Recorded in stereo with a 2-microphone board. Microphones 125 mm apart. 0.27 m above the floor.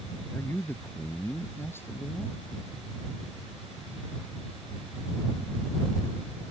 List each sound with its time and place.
0.3 s a man speaking: 20° left (ahead or behind)